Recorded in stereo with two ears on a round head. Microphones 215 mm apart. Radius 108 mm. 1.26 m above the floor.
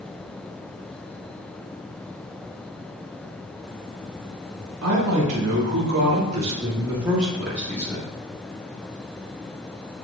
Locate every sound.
4.8 s a woman speaking: 65° right (ahead or behind), 3 m; by 8.1 s 15° left (ahead or behind), 2.5 m